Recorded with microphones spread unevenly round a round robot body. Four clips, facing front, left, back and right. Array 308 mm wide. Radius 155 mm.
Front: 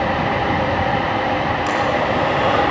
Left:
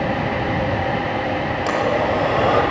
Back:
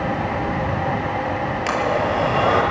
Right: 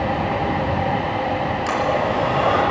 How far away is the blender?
About 7 m.